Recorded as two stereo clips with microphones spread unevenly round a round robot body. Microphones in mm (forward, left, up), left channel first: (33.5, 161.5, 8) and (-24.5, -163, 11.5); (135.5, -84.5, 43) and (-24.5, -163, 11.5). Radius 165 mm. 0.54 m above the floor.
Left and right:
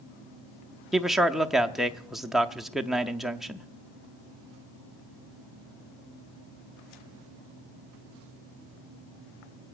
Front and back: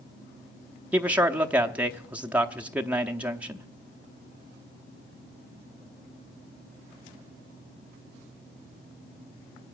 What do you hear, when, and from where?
0.9 s a man speaking: 170° left, 0.6 m